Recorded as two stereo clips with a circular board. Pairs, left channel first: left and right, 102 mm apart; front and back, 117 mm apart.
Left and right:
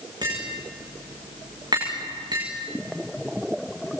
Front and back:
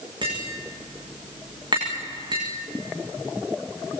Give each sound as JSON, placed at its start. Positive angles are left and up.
{"t": 0.2, "sound": "tapping", "azimuth_deg": -135, "distance_m": 9.5}